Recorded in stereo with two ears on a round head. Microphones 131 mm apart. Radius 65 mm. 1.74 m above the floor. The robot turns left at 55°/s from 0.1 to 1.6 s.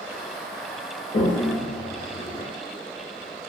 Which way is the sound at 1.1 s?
35° left (ahead or behind).